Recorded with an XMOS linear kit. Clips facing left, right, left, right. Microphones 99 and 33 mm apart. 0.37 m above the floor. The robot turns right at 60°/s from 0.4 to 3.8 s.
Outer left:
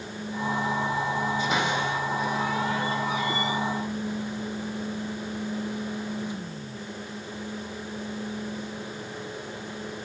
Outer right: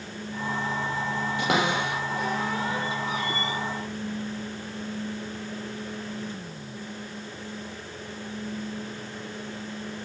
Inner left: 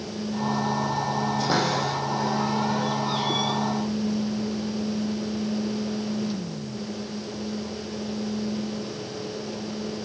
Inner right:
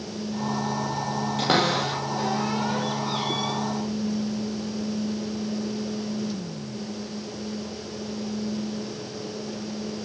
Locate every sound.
1.4 s a cupboard door: 75° right (ahead or behind), 8.5 m; by 3.6 s 25° left (ahead or behind), 8.5 m